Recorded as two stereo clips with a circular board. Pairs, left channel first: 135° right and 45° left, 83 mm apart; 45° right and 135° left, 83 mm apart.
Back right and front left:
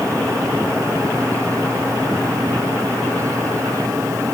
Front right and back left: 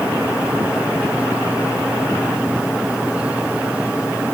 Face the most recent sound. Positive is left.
No sound to turn to.